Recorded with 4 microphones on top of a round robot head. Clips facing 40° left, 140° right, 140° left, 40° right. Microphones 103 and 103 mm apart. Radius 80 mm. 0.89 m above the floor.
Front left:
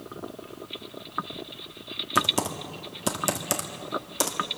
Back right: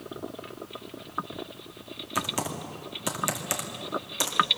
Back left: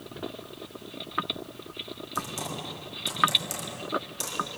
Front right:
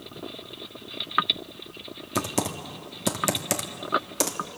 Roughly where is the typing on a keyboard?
Ahead right.